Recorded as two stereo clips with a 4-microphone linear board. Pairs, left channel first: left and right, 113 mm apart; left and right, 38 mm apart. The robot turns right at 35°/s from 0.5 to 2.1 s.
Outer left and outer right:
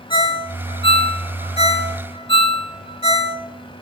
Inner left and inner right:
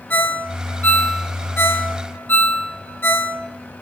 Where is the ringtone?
45° left (ahead or behind), 0.9 m; by 3.4 s 50° left (ahead or behind), 0.9 m.